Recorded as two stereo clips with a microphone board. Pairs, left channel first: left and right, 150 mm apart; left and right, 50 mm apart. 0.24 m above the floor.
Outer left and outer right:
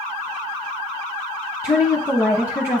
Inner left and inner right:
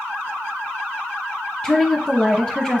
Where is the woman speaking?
15° left (ahead or behind), 1.5 m.